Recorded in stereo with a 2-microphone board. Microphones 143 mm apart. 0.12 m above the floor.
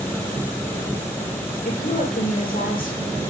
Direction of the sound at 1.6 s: 65° left (ahead or behind).